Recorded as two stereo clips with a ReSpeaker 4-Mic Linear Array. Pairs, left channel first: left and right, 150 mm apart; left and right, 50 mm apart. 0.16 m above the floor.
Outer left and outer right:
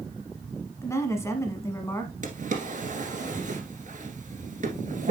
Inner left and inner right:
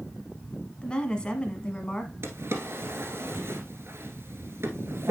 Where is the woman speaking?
20° left (ahead or behind), 1.1 m.